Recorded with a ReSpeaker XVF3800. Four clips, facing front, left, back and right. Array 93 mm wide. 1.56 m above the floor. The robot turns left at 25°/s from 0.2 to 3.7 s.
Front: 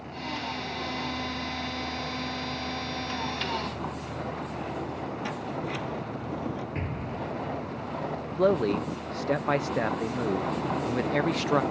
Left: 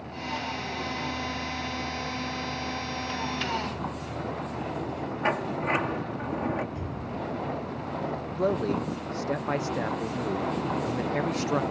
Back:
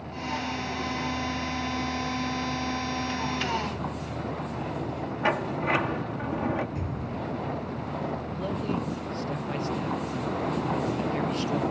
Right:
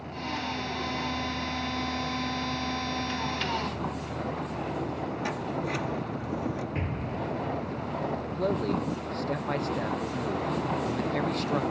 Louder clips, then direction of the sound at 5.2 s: Left 7 dB, back 11 dB; 145° left.